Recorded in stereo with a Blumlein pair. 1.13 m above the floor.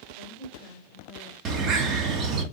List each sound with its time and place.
0.1 s a woman speaking: 45° right, 4 m; by 1.4 s 35° right, 4.5 m
1.4 s a bird: 30° right, 1.5 m